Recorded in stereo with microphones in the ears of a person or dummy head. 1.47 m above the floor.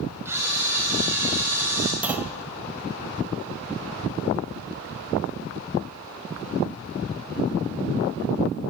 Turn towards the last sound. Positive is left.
turn(degrees=-5)  # may be behind; listen again after turning